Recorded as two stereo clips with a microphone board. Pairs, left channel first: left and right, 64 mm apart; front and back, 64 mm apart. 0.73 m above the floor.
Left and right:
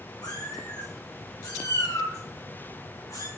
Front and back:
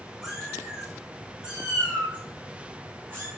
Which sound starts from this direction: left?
A cat meowing, at 0.2 s.